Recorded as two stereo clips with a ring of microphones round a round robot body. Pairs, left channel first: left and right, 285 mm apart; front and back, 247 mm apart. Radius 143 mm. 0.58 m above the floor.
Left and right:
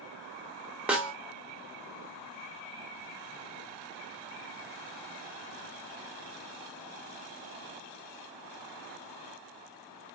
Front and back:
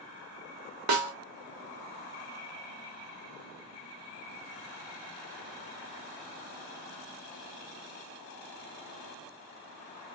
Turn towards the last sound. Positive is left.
turn(degrees=-175)